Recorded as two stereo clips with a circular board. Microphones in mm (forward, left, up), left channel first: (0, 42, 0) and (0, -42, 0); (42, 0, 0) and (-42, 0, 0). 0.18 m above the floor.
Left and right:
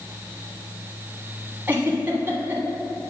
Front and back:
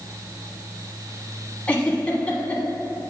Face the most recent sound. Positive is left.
turn(degrees=-55)